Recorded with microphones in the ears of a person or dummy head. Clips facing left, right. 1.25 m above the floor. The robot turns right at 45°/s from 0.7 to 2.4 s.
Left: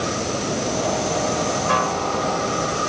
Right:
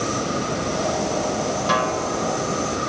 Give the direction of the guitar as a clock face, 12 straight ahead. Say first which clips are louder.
Even; 2 o'clock.